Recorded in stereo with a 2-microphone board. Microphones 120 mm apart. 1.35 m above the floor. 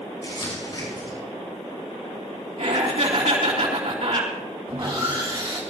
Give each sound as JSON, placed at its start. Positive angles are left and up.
{"t": 0.2, "sound": "crumpling", "side_deg": 40, "distance_m": 6.0}
{"t": 2.6, "sound": "laughter", "side_deg": -70, "distance_m": 3.0}
{"t": 4.7, "sound": "sawing", "side_deg": -45, "distance_m": 3.5}